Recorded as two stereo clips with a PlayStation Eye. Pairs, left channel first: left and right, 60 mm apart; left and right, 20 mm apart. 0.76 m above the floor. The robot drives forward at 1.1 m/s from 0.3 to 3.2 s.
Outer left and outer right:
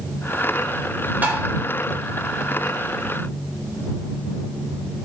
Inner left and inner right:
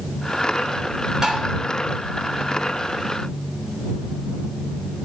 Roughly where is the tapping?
Right.